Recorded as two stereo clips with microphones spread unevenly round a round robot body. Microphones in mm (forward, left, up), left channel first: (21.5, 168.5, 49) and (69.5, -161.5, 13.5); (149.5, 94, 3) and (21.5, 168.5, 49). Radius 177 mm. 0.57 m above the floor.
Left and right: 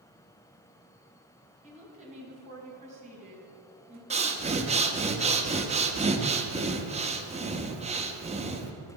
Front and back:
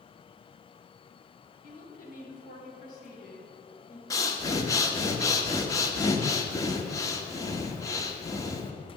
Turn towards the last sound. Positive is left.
turn(degrees=-35)